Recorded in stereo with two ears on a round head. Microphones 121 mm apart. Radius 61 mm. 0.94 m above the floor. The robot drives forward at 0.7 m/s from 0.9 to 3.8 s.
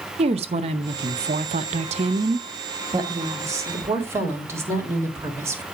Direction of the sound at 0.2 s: 45° right (ahead or behind).